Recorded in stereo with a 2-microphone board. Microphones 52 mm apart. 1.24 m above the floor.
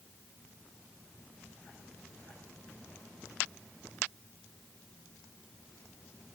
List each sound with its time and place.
Only background noise.